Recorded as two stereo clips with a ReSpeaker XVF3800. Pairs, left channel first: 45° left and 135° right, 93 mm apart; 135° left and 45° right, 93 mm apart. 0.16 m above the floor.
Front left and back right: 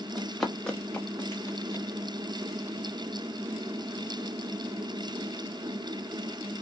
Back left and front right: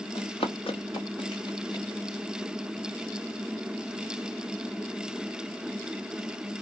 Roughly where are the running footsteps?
Behind left.